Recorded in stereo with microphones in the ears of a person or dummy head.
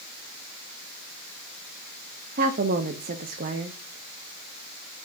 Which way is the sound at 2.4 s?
45° right (ahead or behind).